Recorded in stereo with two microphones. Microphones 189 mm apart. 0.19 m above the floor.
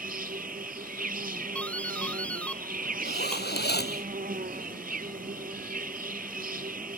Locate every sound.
0.0 s an insect: 50° right (ahead or behind)
1.6 s a doorbell: 5° left (ahead or behind)
3.0 s a zipper: 60° left (ahead or behind)